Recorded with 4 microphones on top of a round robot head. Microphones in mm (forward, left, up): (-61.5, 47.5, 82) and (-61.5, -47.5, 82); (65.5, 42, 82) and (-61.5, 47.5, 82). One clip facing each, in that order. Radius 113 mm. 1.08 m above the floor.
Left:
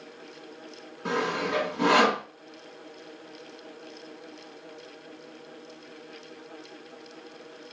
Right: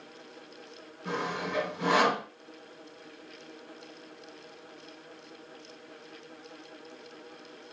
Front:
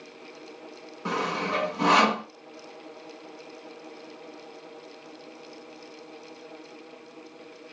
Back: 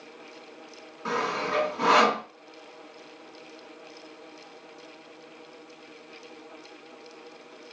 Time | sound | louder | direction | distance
1.1 | sawing | left 5 dB, even | 65° left | 2.5 m